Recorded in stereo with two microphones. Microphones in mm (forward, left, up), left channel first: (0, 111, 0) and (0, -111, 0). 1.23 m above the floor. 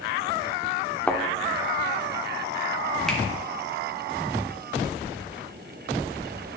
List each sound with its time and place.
1.1 s a thud: 5° left (ahead or behind), 0.9 m
3.1 s a finger snap: 5° left (ahead or behind), 1.7 m